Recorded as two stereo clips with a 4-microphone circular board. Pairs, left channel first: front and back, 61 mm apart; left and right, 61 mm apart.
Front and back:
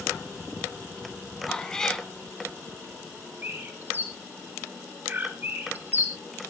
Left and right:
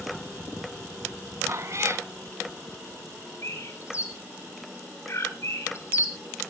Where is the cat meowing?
75° right, 0.9 m.